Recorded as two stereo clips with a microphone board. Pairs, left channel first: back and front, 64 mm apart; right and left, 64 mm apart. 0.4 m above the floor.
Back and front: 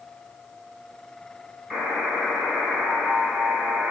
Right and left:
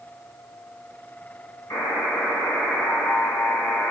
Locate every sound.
1.7 s a buzzer: 90° right, 1.7 m